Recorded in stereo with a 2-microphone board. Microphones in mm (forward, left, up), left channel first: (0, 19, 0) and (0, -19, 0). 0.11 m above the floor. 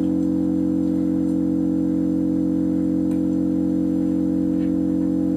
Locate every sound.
0.0 s an engine running: 20° left (ahead or behind), 2.0 m